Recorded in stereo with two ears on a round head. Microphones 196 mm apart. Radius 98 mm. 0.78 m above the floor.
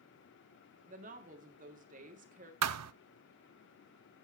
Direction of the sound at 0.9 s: 40° right (ahead or behind).